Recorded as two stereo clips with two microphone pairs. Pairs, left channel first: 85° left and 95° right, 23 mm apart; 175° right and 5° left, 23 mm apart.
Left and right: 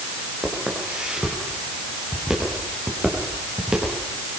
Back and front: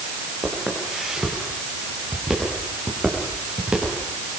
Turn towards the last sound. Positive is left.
turn(degrees=-40)